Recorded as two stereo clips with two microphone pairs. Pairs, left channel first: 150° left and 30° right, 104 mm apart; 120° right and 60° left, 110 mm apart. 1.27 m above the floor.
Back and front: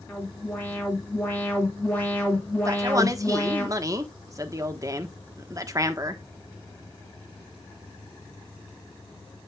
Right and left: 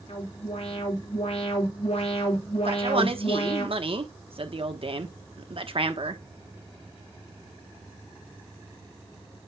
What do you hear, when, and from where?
0.1 s an alarm: 140° right, 3.5 m
2.6 s a man speaking: 25° left, 1.2 m